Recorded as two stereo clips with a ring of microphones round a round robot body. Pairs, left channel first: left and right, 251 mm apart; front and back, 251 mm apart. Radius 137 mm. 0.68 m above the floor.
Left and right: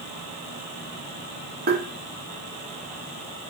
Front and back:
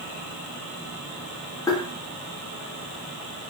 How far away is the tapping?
About 0.7 m.